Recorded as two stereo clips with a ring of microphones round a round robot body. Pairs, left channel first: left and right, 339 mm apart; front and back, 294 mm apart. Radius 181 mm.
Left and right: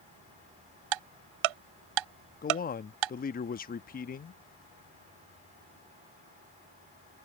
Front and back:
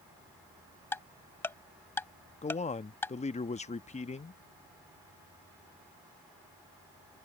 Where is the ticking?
85° right.